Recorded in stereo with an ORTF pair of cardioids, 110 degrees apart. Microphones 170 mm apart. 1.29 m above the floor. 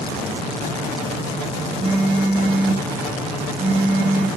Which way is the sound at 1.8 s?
35° right.